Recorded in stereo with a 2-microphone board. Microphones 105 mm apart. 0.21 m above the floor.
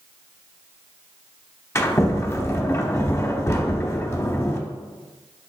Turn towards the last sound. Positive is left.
turn(degrees=30)  # may be behind; listen again after turning